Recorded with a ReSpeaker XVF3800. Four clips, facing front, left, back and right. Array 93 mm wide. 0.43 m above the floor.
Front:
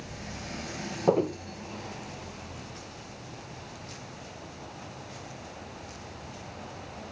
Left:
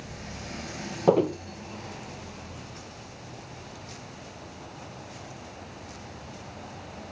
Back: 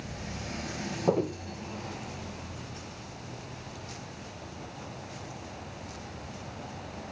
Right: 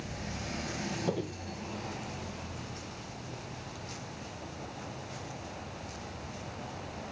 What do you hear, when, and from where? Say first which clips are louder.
1.1 s footsteps: left 16 dB, front 3 dB; 75° left